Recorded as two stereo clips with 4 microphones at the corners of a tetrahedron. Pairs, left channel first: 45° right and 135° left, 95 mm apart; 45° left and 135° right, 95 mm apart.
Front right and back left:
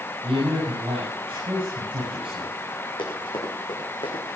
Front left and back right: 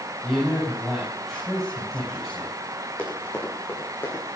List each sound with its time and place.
0.2 s a man speaking: 135° left, 6.5 m
3.0 s running footsteps: 30° right, 5.5 m; by 4.4 s 20° right, 5.5 m